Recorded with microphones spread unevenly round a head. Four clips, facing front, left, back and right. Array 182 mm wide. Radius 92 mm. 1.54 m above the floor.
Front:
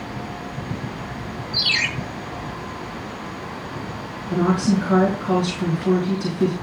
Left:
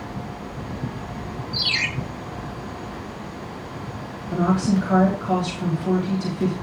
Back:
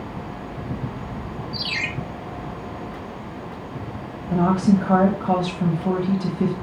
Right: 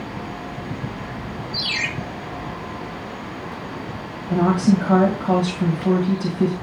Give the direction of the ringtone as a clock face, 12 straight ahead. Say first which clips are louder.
Left 1 dB, front 5 dB; 6 o'clock.